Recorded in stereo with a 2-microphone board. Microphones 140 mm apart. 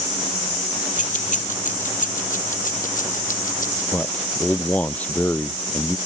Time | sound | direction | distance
1.0 | keys jangling | 70° left (ahead or behind) | ?
3.9 | a man speaking | 10° left (ahead or behind) | ?